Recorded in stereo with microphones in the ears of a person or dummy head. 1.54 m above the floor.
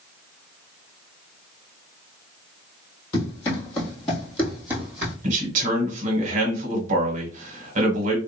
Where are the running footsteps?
25° left (ahead or behind), 1.7 m; by 5.1 s 20° right (ahead or behind), 1.6 m.